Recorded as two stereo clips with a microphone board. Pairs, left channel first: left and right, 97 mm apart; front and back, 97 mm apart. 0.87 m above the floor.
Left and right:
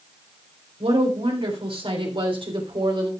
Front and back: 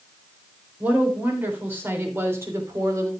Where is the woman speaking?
105° right, 3.5 m; by 3.1 s 125° right, 2.5 m.